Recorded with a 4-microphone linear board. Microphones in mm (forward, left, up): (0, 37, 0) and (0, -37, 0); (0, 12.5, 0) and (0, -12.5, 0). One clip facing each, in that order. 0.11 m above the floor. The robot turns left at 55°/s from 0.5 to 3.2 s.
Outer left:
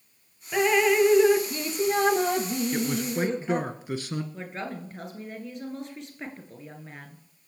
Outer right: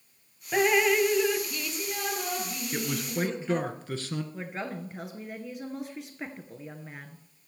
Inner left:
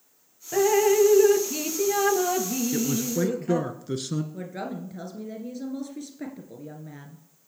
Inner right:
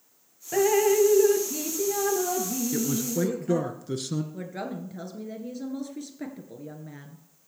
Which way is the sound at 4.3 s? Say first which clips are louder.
Even, inner left 1 dB; 5° right (ahead or behind).